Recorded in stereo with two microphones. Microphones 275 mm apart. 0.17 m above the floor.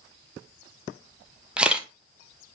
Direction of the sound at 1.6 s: 5° right (ahead or behind).